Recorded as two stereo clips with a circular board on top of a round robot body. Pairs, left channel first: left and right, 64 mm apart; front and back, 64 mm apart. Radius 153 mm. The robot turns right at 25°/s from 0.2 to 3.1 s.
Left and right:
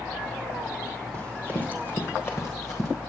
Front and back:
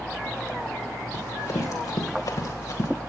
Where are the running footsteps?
20° left, 4 m; by 2.9 s 45° left, 3.5 m.